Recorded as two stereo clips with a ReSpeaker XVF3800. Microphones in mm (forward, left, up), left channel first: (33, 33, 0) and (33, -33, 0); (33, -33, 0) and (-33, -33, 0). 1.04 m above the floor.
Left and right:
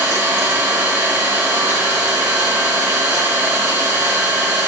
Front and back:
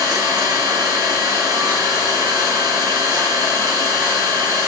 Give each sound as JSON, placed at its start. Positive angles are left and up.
{"t": 0.0, "sound": "an engine running", "azimuth_deg": -165, "distance_m": 5.0}